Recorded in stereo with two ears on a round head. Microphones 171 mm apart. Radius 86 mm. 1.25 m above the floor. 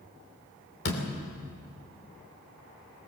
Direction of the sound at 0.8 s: 50° left (ahead or behind).